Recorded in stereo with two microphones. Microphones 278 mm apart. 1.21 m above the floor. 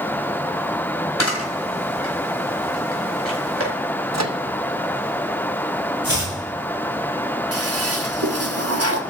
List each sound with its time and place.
1.2 s a camera shutter: 70° left (ahead or behind), 4.5 m
4.1 s a microwave: 70° right (ahead or behind), 0.8 m
6.0 s chopping: 55° left (ahead or behind), 8 m
7.5 s a toilet flushing: 60° right (ahead or behind), 1.1 m